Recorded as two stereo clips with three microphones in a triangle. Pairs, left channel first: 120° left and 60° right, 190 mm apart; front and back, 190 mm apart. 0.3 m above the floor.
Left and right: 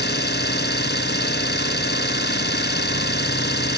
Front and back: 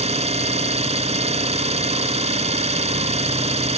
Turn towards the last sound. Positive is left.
turn(degrees=130)